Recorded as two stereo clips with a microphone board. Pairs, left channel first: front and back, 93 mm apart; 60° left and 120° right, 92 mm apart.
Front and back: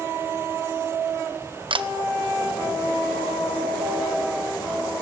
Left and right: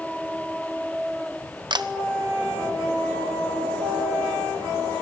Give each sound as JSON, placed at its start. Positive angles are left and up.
{"t": 1.7, "sound": "a camera shutter", "azimuth_deg": -160, "distance_m": 1.1}